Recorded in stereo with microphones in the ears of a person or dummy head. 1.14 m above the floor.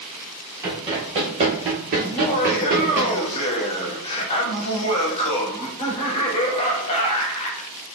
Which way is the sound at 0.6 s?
20° right (ahead or behind).